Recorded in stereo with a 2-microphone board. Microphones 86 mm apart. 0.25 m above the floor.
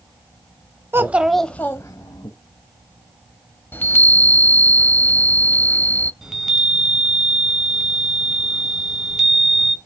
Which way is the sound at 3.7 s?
25° left (ahead or behind).